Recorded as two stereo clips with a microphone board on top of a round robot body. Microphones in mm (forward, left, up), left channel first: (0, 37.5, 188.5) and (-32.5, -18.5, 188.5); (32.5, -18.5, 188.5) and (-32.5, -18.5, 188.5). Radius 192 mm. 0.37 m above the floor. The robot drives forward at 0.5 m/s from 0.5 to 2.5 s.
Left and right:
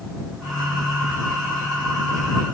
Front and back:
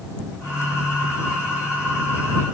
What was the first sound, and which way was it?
Only background noise.